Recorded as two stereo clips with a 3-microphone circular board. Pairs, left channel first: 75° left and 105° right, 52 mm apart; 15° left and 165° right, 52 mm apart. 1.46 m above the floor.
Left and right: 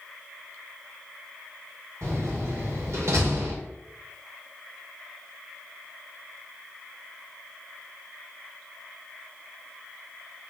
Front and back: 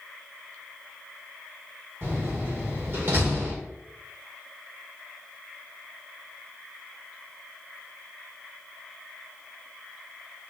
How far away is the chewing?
I don't hear chewing.